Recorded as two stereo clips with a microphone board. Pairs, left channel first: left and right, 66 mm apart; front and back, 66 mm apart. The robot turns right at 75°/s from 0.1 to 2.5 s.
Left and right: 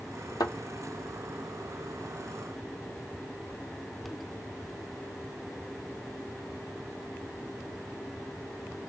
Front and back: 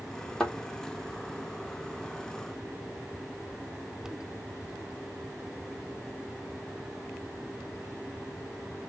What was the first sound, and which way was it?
A thud, 80° left.